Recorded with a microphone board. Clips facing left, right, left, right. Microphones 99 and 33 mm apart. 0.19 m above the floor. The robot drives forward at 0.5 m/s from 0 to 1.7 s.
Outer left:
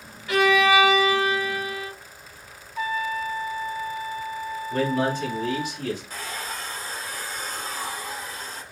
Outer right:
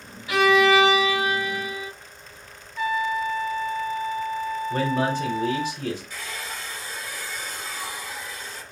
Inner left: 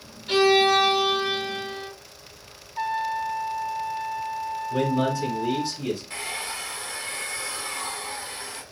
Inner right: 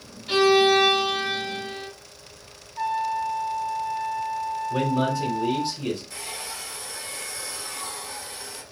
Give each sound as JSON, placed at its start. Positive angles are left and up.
{"t": 0.3, "sound": "a violin", "side_deg": -5, "distance_m": 1.4}
{"t": 2.8, "sound": "a trumpet", "side_deg": 40, "distance_m": 0.5}
{"t": 4.7, "sound": "a man speaking", "side_deg": -35, "distance_m": 1.4}
{"t": 6.1, "sound": "a hair dryer", "side_deg": 45, "distance_m": 0.7}